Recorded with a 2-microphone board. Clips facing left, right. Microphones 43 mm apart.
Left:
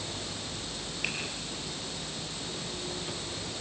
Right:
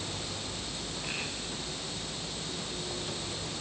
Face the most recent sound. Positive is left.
turn(degrees=85)